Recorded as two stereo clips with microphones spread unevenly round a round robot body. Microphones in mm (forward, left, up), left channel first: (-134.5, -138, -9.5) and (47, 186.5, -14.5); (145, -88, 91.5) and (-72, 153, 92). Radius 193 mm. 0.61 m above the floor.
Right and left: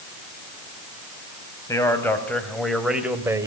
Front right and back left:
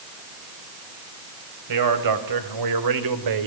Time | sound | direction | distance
1.7 | a man speaking | 160° left | 3.5 m